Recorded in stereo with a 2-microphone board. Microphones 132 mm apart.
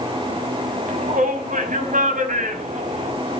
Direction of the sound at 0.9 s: 80° right.